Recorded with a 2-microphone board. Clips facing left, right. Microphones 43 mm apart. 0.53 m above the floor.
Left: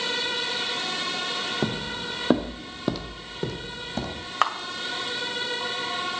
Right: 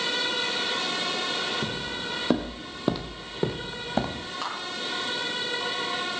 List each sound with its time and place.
1.6 s footsteps: 45° left (ahead or behind), 1.1 m; by 4.3 s 40° right (ahead or behind), 2.5 m
4.4 s a camera shutter: 75° left (ahead or behind), 1.4 m